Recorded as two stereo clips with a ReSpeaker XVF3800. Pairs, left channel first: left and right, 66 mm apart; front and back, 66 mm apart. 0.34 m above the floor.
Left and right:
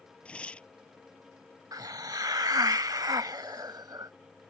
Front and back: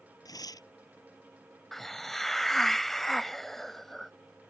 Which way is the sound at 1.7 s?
85° right.